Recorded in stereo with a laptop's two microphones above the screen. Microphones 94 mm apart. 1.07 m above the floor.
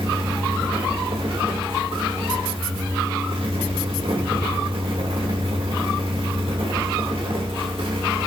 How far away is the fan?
About 2 m.